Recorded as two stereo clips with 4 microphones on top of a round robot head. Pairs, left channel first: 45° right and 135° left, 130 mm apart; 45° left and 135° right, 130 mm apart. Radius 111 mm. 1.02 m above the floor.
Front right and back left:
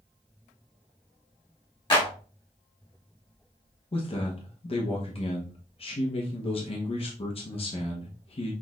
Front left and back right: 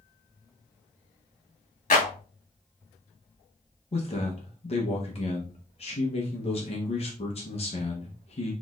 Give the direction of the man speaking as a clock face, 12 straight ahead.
12 o'clock.